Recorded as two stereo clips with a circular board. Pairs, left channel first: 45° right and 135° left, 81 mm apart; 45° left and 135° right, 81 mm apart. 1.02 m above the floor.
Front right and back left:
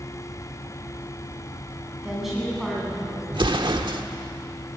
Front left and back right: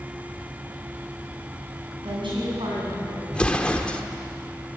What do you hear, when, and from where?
2.0 s a woman speaking: 140° right, 8.5 m; by 3.2 s 135° right, 9 m
3.3 s an explosion: 120° left, 1.3 m